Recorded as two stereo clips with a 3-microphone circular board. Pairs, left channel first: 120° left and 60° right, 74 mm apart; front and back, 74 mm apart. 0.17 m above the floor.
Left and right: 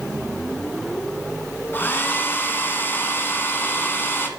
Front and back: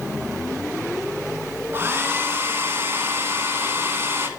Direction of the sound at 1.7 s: 155° left.